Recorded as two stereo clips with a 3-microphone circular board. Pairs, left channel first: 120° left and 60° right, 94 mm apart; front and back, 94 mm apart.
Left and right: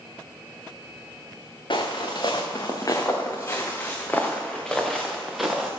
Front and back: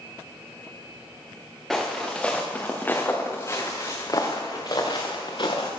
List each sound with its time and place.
1.7 s footsteps: 90° left, 1.9 m; by 5.7 s 25° left, 2 m